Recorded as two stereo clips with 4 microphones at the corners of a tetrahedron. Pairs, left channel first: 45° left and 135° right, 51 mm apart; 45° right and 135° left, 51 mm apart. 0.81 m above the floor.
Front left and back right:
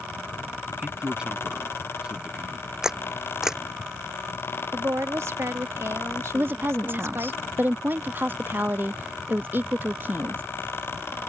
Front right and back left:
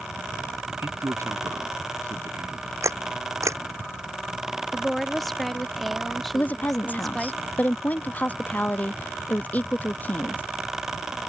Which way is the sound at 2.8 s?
145° left.